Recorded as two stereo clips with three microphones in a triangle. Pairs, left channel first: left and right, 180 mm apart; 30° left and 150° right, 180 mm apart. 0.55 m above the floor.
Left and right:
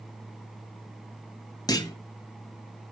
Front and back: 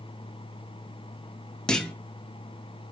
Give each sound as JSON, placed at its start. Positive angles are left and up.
{"t": 1.7, "sound": "a clunk", "azimuth_deg": 105, "distance_m": 0.6}